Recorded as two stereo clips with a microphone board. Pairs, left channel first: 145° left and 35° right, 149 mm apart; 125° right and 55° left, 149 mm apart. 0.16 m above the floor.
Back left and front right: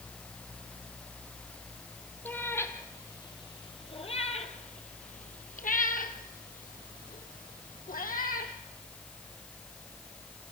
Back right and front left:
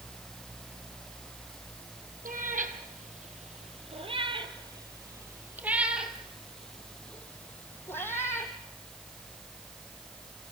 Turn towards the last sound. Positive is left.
turn(degrees=165)